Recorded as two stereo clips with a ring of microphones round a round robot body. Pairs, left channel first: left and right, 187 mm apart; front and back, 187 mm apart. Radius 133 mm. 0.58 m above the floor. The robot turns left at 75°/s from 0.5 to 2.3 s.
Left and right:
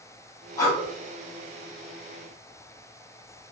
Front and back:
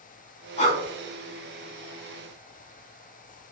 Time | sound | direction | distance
0.6 | breathing | 30° left | 1.0 m